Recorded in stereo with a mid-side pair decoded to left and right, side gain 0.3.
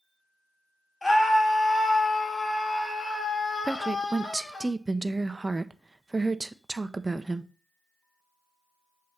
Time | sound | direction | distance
1.0 | a scream | 30° left | 3.5 m
3.6 | a woman speaking | 25° right | 0.7 m